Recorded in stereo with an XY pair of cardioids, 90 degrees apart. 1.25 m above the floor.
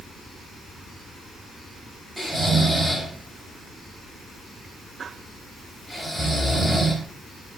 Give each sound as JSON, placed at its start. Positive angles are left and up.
{"t": 2.2, "sound": "snoring", "azimuth_deg": -5, "distance_m": 7.5}